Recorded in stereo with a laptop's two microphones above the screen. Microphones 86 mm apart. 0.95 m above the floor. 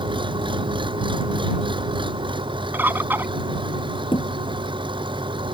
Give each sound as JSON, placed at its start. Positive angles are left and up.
{"t": 0.0, "sound": "an engine running", "side_deg": -70}
{"t": 2.7, "sound": "a bird", "side_deg": -20}
{"t": 4.1, "sound": "a thud", "side_deg": 80}